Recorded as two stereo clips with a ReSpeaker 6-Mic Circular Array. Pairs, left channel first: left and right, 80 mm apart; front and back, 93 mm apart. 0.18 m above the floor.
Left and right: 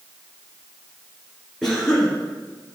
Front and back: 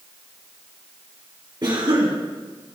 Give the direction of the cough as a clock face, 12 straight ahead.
6 o'clock.